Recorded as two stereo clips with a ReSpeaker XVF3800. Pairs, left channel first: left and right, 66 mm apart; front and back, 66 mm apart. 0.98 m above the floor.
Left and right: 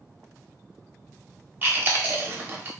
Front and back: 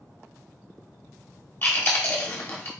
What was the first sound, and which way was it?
Chewing, 40° right.